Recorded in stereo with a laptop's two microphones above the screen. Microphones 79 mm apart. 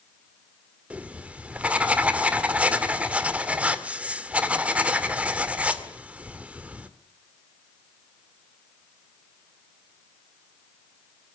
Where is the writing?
15° right (ahead or behind), 2 m.